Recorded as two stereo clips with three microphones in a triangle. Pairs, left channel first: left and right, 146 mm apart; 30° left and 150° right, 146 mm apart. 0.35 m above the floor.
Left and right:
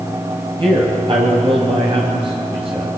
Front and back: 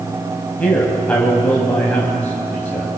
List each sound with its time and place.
0.6 s a man speaking: 50° right, 2 m